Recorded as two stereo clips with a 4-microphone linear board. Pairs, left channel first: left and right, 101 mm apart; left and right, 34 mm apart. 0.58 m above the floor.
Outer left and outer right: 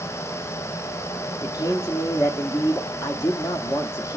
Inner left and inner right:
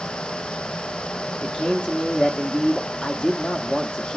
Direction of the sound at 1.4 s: 30° left (ahead or behind).